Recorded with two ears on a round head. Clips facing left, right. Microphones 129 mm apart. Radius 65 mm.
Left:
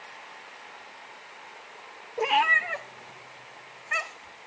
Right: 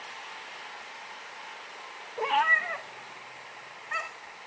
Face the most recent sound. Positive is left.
turn(degrees=25)  # may be behind; listen again after turning